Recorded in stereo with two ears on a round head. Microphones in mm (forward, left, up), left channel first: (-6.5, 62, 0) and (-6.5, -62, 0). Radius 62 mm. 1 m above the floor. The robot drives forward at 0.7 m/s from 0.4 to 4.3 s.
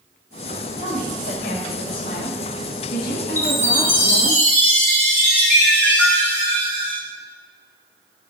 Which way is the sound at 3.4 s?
20° left (ahead or behind).